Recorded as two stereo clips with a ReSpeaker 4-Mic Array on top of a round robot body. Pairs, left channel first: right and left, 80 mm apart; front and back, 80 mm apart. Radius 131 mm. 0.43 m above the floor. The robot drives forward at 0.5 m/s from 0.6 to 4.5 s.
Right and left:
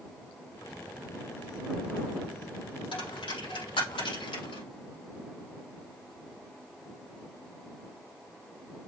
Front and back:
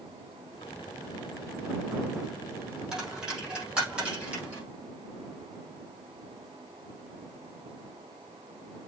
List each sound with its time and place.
2.9 s a dropped coin: 95° right, 5.5 m; by 4.6 s 105° right, 5.5 m